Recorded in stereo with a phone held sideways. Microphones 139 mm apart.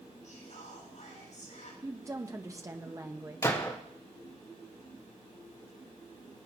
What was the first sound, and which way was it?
Whispering, 65° left (ahead or behind).